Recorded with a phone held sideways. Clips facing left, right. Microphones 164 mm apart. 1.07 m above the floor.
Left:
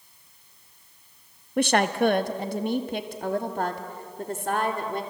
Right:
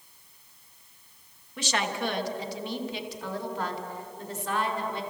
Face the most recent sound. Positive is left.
turn(degrees=50)  # may be behind; listen again after turning